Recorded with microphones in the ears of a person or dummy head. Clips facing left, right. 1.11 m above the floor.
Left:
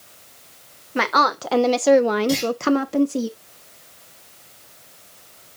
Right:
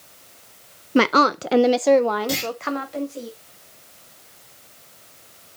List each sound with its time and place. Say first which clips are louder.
0.9 s a woman speaking: right 5 dB; 45° right (ahead or behind), 0.7 m; by 3.3 s 65° left (ahead or behind), 0.9 m
2.3 s a clunk: left 6 dB; 5° right (ahead or behind), 5 m